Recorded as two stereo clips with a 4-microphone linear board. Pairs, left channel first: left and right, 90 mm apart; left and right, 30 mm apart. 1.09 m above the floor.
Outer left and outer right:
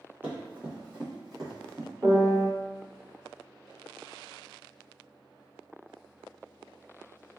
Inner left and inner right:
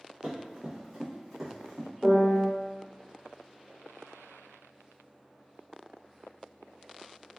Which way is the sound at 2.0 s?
65° right (ahead or behind).